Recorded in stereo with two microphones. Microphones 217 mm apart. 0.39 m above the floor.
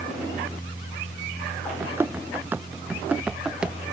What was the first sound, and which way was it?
Running footsteps, 10° right (ahead or behind).